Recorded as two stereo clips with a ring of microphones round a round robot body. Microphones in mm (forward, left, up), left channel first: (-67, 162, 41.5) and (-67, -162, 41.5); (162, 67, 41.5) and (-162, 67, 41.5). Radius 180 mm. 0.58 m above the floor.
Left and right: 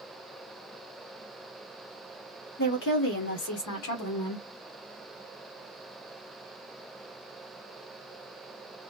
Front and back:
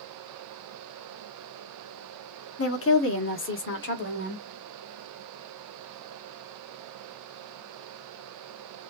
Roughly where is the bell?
No bell in this recording.